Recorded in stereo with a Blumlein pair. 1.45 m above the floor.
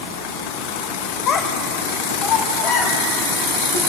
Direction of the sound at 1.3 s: 30° left.